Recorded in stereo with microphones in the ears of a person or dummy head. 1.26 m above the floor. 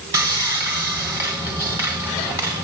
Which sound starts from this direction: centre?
Sawing, at 0.1 s.